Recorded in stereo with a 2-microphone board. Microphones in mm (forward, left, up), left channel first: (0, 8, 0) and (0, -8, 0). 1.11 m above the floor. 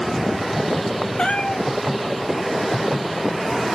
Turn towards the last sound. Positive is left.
turn(degrees=75)  # may be behind; listen again after turning